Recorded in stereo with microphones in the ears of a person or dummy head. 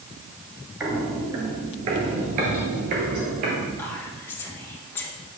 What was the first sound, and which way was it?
Footsteps, 10° right (ahead or behind).